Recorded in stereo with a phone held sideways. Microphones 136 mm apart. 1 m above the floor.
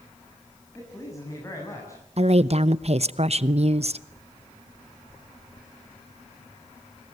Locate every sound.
0.8 s a man speaking: 25° left (ahead or behind), 6.5 m
2.2 s a woman speaking: 50° right (ahead or behind), 0.8 m